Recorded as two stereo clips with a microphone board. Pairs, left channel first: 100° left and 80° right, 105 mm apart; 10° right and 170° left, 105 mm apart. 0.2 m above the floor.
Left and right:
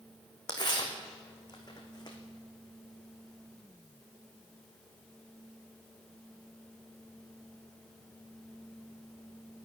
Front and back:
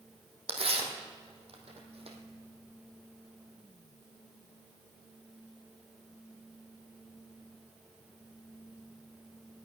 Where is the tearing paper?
145° left, 2.5 m.